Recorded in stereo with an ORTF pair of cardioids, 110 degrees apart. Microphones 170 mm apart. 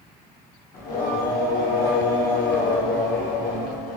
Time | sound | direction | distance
0.7 | singing | 65° left | 1.2 m